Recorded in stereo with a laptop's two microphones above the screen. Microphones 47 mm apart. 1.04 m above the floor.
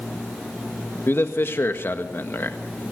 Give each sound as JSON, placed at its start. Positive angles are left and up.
{"t": 1.1, "sound": "a man speaking", "side_deg": 55, "distance_m": 1.6}